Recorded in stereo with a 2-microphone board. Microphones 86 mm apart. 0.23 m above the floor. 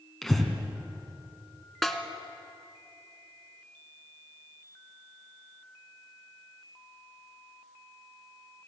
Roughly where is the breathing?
Centre.